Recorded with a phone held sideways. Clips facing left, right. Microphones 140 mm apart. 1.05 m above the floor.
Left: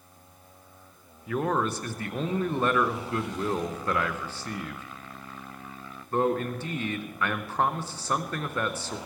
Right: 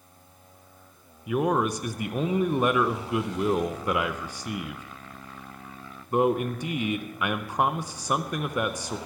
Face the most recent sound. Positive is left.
turn(degrees=-15)  # may be behind; listen again after turning